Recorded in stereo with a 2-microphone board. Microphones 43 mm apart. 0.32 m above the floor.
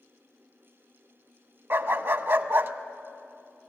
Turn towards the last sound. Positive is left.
turn(degrees=-55)  # may be behind; listen again after turning